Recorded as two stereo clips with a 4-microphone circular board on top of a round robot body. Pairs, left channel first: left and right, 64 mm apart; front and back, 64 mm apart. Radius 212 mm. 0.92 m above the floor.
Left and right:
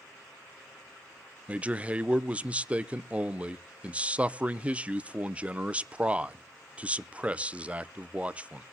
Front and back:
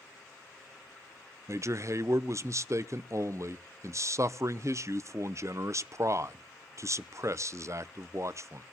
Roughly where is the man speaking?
Behind right.